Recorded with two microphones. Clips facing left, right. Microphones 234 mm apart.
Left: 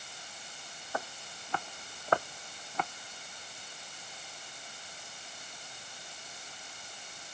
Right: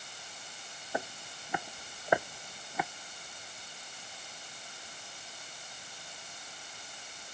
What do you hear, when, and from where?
0.9 s footsteps: 20° right (ahead or behind); by 2.9 s 10° right (ahead or behind)